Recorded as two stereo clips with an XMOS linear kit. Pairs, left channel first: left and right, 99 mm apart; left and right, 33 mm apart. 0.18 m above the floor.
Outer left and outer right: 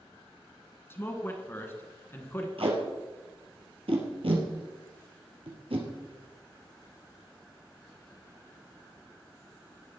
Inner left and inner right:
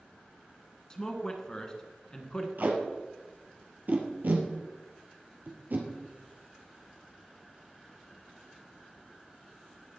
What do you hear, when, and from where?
0.9 s a man speaking: 20° left (ahead or behind), 2.0 m
2.6 s tape being pulled: 65° right (ahead or behind), 3 m